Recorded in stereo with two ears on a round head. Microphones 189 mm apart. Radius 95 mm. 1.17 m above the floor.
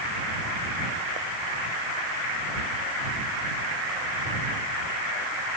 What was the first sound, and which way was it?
Only background noise.